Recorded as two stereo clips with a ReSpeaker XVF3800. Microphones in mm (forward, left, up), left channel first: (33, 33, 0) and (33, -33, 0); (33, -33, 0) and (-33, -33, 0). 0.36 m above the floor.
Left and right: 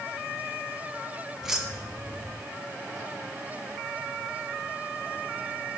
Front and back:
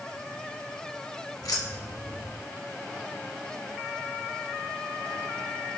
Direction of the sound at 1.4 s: 10° right.